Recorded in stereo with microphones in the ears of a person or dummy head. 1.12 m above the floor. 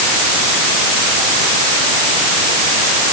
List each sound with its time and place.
Only background noise.